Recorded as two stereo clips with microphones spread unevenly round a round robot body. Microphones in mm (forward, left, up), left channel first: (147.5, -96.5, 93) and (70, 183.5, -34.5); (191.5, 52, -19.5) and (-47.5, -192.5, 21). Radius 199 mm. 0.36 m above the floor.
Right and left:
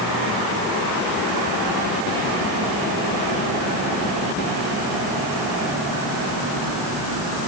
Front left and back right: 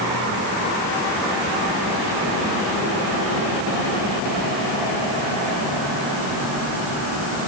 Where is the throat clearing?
I don't hear throat clearing.